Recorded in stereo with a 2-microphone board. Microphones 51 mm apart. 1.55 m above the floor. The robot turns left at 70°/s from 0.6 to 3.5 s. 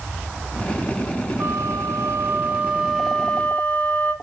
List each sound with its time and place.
1.4 s a flute: 60° right, 2 m; by 4.1 s 155° left, 2 m